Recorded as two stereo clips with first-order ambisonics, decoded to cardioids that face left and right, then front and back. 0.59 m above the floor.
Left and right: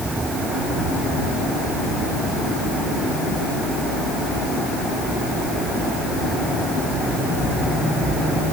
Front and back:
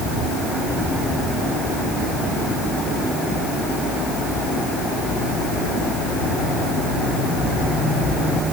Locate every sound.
Only background noise.